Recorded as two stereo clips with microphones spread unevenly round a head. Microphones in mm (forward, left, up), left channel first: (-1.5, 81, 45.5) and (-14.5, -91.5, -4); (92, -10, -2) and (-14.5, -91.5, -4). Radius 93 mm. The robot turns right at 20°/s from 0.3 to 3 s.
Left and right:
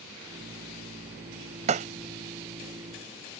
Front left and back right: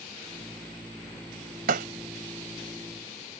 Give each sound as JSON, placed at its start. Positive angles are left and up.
{"t": 1.7, "sound": "breaking glass", "azimuth_deg": -150}